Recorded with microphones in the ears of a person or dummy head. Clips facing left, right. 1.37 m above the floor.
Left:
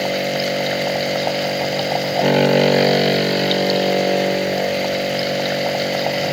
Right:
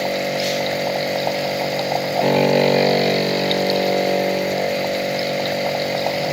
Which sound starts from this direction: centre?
A machine running, at 0.0 s.